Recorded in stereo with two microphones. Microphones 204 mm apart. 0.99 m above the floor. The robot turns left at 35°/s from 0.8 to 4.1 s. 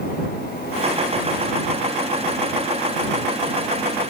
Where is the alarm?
No alarm in this recording.